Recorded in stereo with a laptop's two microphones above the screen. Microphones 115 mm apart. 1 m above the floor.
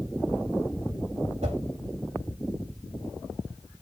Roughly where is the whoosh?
Right.